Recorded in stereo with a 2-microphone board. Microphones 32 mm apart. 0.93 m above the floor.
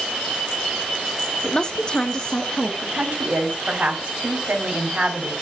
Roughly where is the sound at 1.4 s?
Left.